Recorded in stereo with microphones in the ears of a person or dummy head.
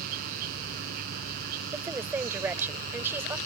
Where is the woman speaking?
10° right (ahead or behind).